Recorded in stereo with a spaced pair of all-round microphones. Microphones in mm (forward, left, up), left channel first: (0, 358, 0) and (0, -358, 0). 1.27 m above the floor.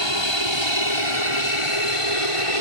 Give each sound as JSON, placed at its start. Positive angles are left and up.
{"t": 0.0, "sound": "an aircraft", "side_deg": 35}